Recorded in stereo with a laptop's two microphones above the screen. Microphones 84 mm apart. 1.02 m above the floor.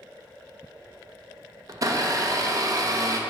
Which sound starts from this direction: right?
A blender, at 1.7 s.